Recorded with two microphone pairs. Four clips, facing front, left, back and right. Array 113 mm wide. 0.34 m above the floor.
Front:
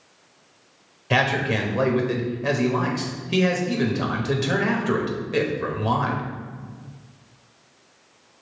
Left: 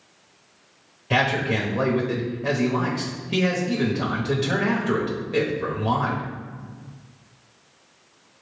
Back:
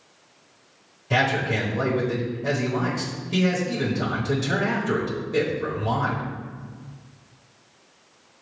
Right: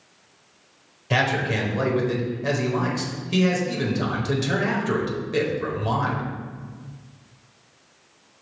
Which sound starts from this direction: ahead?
A man speaking, at 1.1 s.